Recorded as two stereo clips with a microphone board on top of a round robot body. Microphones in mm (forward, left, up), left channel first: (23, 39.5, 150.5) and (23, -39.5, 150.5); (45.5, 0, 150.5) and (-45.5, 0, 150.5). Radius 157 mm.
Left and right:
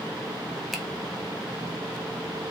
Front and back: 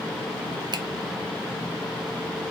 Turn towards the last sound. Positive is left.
turn(degrees=180)